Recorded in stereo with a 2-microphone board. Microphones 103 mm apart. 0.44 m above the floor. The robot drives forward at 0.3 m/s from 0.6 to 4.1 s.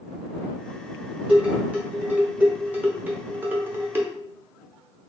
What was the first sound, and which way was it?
Dishes clattering, 10° right (ahead or behind).